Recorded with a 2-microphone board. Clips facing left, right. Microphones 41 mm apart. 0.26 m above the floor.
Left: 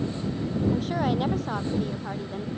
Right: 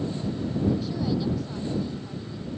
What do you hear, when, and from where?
0.7 s a woman speaking: 55° left (ahead or behind)